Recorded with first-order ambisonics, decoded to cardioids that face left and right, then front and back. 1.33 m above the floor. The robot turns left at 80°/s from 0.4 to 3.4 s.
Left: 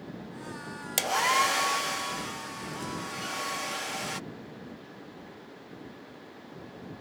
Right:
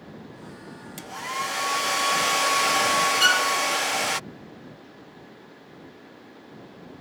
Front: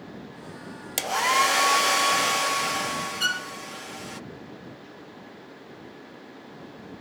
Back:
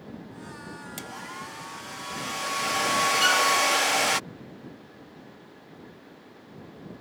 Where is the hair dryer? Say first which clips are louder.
Left 6 dB, front 19 dB; 50° left; by 4.2 s 145° right.